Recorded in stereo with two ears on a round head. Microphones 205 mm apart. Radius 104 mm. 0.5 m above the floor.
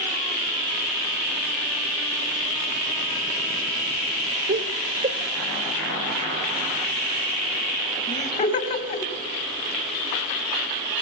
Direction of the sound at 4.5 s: 45° right (ahead or behind).